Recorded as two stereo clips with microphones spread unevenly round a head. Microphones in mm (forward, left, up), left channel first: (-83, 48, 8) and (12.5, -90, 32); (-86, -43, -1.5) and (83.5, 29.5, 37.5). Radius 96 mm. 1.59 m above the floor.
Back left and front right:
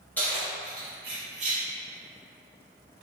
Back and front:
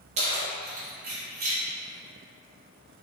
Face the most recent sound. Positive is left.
turn(degrees=-10)